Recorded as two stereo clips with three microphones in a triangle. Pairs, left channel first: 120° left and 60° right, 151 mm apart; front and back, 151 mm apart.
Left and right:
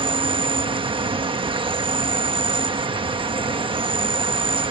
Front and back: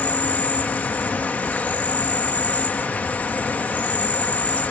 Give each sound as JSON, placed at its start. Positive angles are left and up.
{"t": 0.0, "sound": "an insect", "azimuth_deg": -70}